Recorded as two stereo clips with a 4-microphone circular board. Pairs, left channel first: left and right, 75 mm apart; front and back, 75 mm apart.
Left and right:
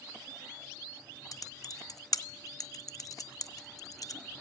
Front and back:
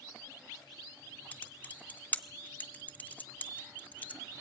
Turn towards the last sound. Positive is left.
turn(degrees=65)